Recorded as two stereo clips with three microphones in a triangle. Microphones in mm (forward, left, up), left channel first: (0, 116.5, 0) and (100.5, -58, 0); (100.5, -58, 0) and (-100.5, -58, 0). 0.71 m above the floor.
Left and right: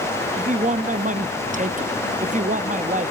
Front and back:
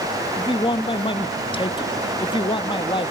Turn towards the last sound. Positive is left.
turn(degrees=-50)